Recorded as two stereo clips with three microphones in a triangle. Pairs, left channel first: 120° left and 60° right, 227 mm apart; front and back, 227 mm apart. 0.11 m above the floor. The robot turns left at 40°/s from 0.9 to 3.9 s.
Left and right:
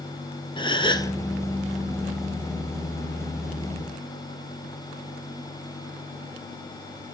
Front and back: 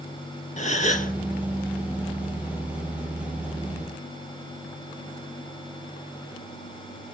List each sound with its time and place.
0.6 s a gasp: 50° left, 1.2 m; by 1.1 s 40° left, 1.2 m